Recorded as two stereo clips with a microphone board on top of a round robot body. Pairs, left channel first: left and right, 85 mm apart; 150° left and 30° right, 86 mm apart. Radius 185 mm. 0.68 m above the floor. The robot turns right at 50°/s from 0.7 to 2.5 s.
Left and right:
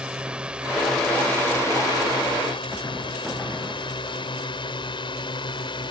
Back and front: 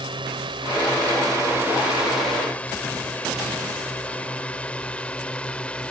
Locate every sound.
0.0 s a drone: 10° right; by 5.9 s 75° left